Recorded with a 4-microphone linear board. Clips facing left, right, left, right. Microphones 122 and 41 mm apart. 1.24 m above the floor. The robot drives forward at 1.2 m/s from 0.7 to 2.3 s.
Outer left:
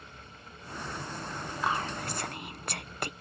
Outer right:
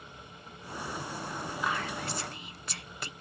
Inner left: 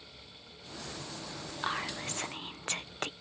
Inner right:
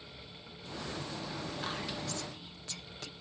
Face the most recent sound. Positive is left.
turn(degrees=55)  # may be behind; listen again after turning